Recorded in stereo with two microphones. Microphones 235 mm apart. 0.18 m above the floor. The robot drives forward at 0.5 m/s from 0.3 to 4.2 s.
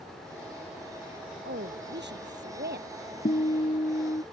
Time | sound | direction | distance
1.4 | a woman speaking | 50° right (ahead or behind) | ?
3.2 | a guitar | 35° left (ahead or behind) | ?